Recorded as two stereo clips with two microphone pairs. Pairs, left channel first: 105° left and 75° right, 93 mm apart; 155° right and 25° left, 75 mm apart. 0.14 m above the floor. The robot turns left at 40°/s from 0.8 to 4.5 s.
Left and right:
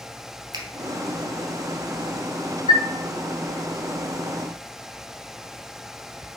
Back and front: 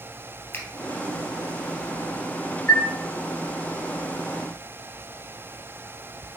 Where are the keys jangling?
I don't hear keys jangling.